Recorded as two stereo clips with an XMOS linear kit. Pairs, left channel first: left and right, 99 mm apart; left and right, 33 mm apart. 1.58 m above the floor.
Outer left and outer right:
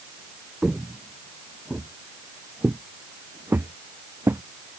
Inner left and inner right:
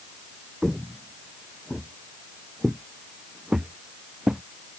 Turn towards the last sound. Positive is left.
turn(degrees=-25)  # may be behind; listen again after turning